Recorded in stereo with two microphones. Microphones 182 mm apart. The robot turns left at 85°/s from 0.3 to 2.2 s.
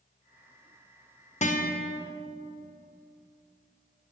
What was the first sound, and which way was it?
A guitar, 135° left.